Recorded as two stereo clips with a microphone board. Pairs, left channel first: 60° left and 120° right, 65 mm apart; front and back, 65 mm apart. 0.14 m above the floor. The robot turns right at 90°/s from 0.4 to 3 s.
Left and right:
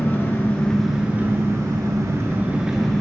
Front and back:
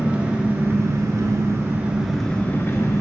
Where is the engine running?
110° left, 0.8 m; by 3.0 s 15° right, 0.8 m.